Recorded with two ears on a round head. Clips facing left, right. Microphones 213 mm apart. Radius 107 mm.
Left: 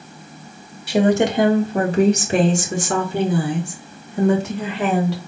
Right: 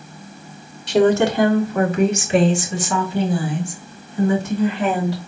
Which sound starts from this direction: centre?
A woman speaking, at 0.9 s.